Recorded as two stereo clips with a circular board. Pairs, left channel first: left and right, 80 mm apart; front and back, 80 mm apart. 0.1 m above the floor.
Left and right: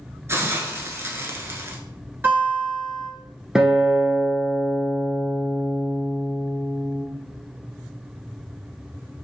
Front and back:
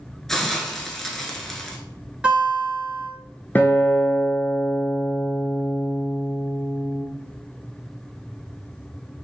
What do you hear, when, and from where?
0.3 s a hiss: 80° right, 0.6 m
2.2 s a guitar: 120° right, 1.3 m
3.5 s a guitar: 15° right, 0.7 m